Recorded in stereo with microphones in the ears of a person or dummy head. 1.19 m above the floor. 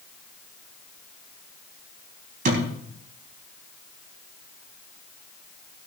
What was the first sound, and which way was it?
A thud, 55° right (ahead or behind).